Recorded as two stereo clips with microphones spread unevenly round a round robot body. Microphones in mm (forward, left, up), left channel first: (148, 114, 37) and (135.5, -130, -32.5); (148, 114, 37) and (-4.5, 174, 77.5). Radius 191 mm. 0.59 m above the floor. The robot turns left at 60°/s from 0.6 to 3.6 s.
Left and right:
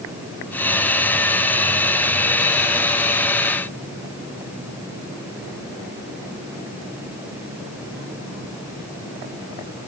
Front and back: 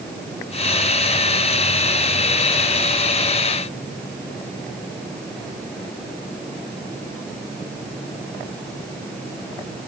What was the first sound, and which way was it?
Only background noise.